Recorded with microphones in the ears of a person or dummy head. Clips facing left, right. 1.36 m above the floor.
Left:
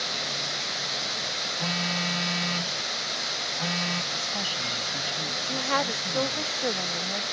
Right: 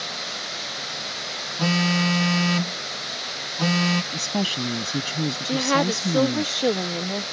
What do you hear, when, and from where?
1.6 s a phone buzzing: 60° right (ahead or behind)
4.1 s a woman speaking: 60° right (ahead or behind)
5.5 s a woman speaking: 55° right (ahead or behind)